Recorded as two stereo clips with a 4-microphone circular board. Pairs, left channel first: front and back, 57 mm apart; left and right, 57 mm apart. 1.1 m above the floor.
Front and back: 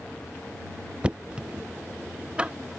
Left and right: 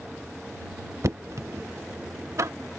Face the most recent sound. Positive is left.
turn(degrees=-110)